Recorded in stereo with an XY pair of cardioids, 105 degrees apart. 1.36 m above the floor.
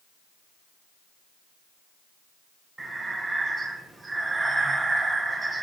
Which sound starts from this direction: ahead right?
Breathing, at 2.8 s.